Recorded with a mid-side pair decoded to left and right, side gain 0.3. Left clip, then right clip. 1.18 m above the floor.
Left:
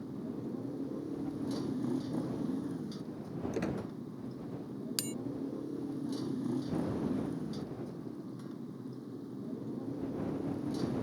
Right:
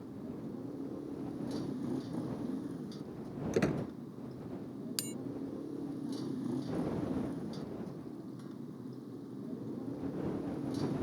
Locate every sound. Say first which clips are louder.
0.0 s a motorcycle: left 3 dB; 35° left; by 11.0 s 10° left
3.5 s a squeak: right 5 dB; 60° right
5.0 s a bell: left 2 dB; 20° left